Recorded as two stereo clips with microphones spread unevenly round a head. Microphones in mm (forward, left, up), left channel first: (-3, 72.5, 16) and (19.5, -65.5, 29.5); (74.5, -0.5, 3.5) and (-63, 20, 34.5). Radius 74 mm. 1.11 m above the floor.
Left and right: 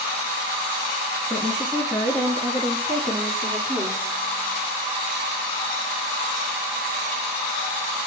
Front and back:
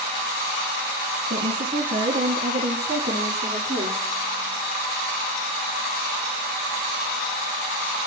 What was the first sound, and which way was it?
A woman speaking, 170° right.